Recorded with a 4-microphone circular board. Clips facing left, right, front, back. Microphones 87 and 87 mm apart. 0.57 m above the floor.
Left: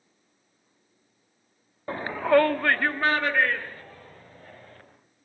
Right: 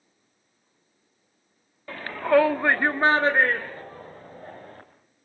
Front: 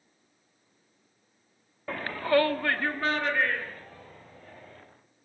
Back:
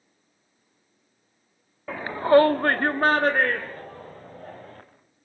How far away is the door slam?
No door slam in this recording.